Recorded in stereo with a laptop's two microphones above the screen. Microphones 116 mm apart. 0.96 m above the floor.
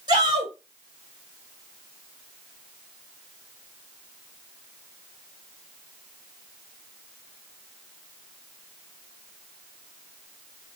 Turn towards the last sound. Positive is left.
turn(degrees=-35)  # may be behind; listen again after turning